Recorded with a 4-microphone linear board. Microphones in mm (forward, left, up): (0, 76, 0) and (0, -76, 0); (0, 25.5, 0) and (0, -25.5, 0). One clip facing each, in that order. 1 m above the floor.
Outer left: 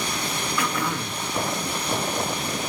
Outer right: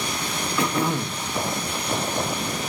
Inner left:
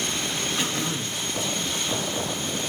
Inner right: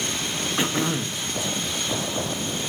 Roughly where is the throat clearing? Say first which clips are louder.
Outer right 5 dB, inner right 4 dB; right.